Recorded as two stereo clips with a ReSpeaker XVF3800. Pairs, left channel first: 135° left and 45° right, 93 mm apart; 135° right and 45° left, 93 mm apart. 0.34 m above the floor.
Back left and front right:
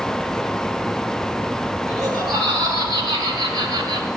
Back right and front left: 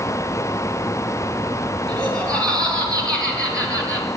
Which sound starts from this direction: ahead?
Laughter, at 1.9 s.